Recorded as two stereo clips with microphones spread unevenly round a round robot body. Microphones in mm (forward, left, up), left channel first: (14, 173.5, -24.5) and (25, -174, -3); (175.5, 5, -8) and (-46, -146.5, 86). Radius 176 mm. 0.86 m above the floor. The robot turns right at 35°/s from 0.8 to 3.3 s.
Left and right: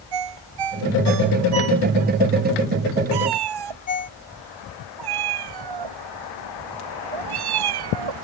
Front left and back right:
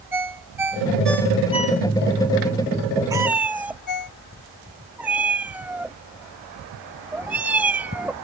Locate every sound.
0.1 s a ringtone: 65° right; by 4.1 s 25° left
3.1 s a cat meowing: 70° right; by 8.1 s 60° right